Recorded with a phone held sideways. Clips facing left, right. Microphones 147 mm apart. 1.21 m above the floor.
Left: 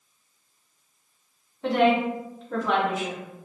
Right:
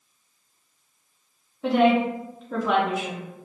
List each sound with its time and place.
1.6 s a woman speaking: 5° right (ahead or behind), 0.5 m